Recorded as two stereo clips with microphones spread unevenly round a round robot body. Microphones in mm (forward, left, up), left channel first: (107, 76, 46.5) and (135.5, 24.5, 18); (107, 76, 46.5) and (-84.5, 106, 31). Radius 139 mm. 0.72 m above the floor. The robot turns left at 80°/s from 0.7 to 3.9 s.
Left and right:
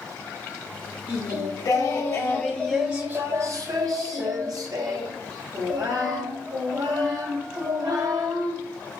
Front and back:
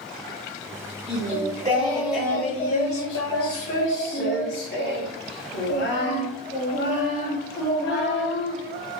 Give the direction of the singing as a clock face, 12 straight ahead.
6 o'clock.